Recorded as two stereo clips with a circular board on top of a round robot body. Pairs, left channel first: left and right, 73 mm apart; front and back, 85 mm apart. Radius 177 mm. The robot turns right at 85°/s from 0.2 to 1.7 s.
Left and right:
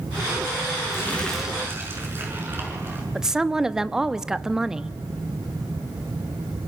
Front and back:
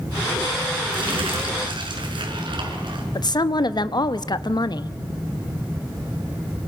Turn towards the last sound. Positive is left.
turn(degrees=-10)